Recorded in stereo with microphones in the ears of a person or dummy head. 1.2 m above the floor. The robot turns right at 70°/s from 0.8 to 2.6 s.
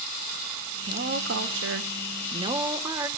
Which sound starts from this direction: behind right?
A woman speaking, at 0.9 s.